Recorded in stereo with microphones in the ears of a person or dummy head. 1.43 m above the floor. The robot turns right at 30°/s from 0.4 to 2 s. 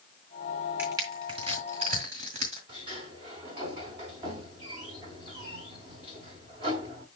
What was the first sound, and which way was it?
Crushing, 15° right (ahead or behind).